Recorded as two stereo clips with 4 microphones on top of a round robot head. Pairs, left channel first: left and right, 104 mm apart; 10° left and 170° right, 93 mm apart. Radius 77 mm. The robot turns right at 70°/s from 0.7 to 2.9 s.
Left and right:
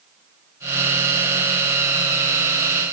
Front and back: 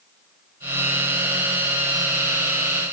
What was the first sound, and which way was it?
Only background noise.